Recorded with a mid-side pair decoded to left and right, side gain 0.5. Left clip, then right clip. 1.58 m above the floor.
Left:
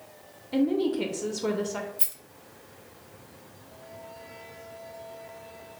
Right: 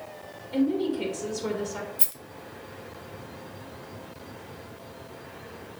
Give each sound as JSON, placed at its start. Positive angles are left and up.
{"t": 0.5, "sound": "a woman speaking", "azimuth_deg": 20, "distance_m": 0.9}
{"t": 2.0, "sound": "a rattle", "azimuth_deg": -15, "distance_m": 0.6}